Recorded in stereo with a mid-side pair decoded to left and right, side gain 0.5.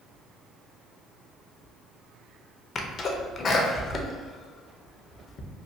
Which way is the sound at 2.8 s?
45° left.